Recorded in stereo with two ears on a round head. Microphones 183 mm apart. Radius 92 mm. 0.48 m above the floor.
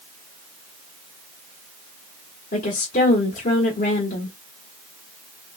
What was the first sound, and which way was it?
A woman speaking, 45° left (ahead or behind).